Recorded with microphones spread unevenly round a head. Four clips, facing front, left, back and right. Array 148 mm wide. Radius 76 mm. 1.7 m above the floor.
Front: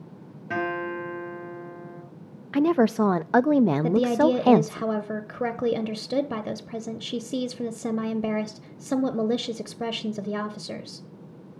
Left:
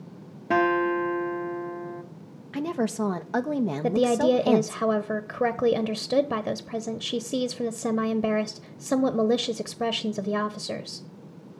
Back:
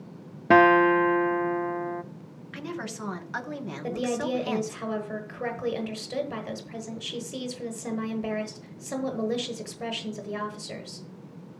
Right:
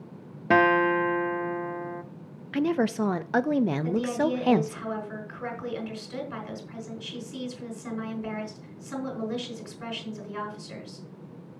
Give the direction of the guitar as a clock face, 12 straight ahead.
5 o'clock.